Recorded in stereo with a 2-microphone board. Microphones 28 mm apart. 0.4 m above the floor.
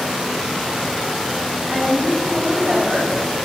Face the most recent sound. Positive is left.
turn(degrees=-45)  # may be behind; listen again after turning